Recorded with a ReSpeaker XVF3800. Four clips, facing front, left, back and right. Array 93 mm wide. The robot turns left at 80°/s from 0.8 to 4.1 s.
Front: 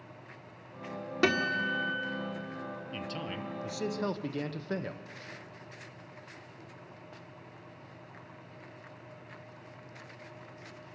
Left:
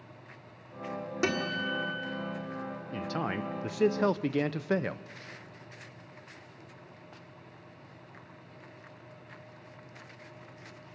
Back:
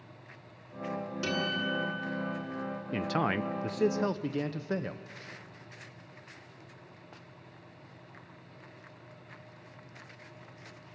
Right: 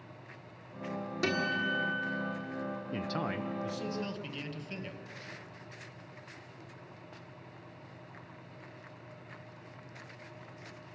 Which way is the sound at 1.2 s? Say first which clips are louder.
Even, front 5 dB; 20° left.